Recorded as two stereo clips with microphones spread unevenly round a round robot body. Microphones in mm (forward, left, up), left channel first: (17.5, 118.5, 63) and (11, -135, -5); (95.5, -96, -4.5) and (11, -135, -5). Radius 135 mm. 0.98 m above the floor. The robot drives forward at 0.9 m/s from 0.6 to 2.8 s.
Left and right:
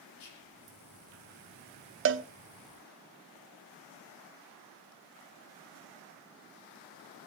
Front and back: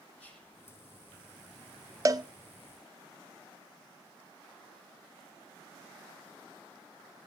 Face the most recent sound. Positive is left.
turn(degrees=-140)